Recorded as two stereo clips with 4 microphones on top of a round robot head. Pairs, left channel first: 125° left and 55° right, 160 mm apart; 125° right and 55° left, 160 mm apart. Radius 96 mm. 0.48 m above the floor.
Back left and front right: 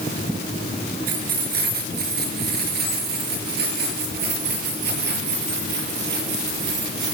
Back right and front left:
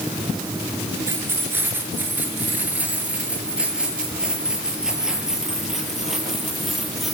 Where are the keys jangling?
20° right, 5.5 m; by 7.1 s 35° right, 9 m.